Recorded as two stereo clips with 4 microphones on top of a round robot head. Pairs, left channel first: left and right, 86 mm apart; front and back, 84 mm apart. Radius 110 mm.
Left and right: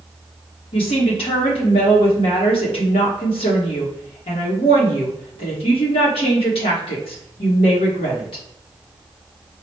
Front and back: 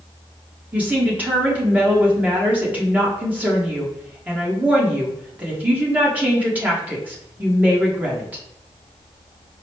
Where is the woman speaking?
110° left, 1.1 m.